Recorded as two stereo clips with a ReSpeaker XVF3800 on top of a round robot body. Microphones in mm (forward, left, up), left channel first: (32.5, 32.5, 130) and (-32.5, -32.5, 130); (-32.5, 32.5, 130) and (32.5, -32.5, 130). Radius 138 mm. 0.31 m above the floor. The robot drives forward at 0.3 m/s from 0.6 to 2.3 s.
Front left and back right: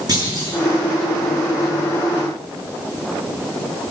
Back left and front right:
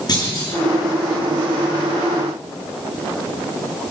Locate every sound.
0.1 s a clunk: straight behind, 7.5 m